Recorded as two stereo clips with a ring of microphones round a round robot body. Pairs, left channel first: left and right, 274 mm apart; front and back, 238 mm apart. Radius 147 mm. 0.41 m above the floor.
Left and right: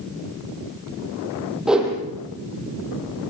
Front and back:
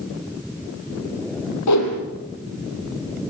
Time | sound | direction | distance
1.7 | a whoosh | straight ahead | 5 m